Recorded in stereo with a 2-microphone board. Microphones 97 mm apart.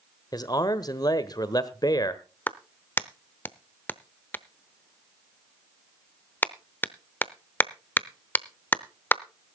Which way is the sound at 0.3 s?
40° left (ahead or behind).